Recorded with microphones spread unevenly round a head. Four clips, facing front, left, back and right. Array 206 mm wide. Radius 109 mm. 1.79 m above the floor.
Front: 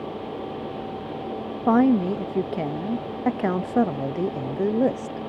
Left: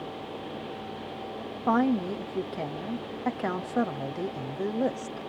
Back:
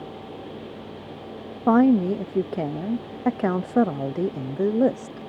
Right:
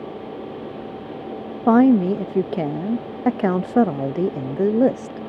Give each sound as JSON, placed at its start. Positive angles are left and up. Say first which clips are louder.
{"t": 1.7, "sound": "a woman speaking", "louder": "right 11 dB, back 1 dB", "azimuth_deg": -100}